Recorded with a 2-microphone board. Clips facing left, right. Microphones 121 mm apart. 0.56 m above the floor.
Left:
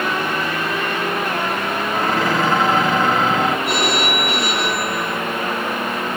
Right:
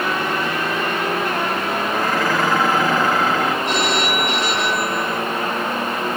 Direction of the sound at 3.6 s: 10° left (ahead or behind).